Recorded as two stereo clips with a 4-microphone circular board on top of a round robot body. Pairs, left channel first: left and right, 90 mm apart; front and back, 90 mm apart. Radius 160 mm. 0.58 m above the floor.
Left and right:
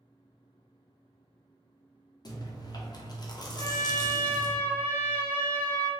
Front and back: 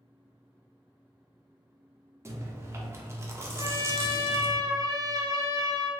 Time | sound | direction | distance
2.2 | chewing | 125° left | 0.7 m
3.6 | a trumpet | 155° left | 0.8 m